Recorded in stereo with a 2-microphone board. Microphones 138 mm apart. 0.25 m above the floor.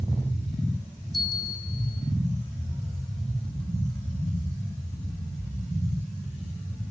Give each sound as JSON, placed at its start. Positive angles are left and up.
{"t": 1.1, "sound": "a bell", "side_deg": 0, "distance_m": 6.0}